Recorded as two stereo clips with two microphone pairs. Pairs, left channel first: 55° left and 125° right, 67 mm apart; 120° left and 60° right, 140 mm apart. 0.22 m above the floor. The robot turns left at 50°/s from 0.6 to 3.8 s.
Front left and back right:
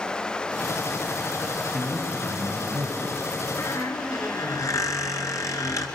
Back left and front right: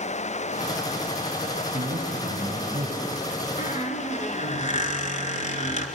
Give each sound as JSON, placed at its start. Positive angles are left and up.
{"t": 1.7, "sound": "a man speaking", "azimuth_deg": -50, "distance_m": 4.5}
{"t": 3.6, "sound": "a squeak", "azimuth_deg": 100, "distance_m": 2.5}